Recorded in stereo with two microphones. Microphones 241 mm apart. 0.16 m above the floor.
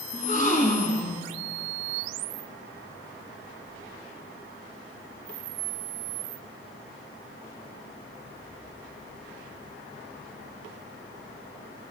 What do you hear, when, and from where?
0.1 s a gasp: 35° left (ahead or behind), 1.8 m